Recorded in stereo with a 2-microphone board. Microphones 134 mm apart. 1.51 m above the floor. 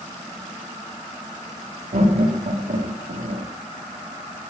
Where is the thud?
I don't hear a thud.